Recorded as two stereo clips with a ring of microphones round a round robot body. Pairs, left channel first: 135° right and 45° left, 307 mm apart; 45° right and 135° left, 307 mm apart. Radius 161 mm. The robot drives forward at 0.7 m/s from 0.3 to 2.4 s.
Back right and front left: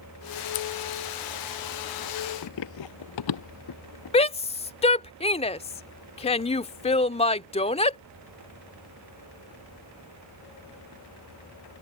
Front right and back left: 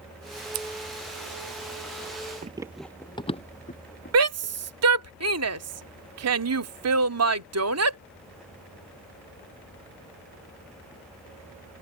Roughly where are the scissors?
Behind.